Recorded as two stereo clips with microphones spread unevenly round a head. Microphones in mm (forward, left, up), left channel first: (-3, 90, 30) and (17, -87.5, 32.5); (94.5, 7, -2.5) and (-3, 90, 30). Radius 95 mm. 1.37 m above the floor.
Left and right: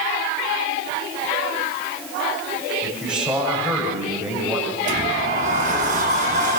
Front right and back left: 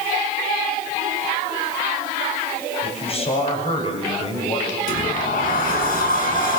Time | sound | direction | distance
2.8 | a man speaking | straight ahead | 7 m
4.9 | a sliding door | 35° right | 6.5 m